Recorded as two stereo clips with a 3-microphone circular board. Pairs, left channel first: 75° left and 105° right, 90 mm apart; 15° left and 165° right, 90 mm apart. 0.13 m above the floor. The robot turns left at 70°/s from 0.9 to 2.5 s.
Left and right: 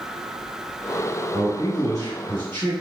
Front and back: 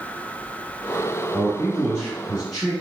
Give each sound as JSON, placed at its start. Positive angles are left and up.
{"t": 1.3, "sound": "a man speaking", "azimuth_deg": 100, "distance_m": 2.0}